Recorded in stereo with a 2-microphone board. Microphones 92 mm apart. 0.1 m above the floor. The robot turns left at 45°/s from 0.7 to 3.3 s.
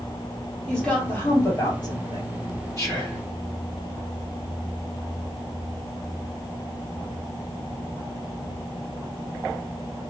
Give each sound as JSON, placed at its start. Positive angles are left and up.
{"t": 0.7, "sound": "a woman speaking", "azimuth_deg": 175, "distance_m": 3.5}
{"t": 2.8, "sound": "whispering", "side_deg": 35, "distance_m": 3.0}